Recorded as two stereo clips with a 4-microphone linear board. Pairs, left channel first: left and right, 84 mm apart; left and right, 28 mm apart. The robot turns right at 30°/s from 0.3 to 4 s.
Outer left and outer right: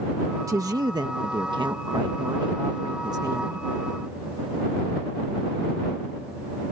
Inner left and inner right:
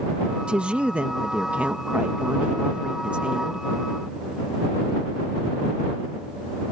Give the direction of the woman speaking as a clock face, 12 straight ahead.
5 o'clock.